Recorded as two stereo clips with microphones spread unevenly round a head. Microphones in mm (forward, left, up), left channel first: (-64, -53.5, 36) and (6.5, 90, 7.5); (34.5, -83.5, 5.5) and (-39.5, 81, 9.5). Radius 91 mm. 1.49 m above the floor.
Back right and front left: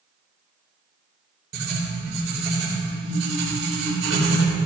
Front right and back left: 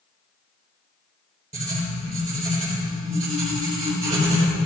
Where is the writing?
65° left, 3.5 m.